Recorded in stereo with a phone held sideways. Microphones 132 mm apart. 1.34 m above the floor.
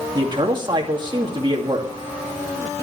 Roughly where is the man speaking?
Right.